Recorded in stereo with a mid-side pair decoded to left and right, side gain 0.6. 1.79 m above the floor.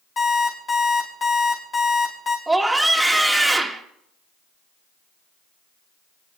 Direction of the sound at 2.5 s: 5° right.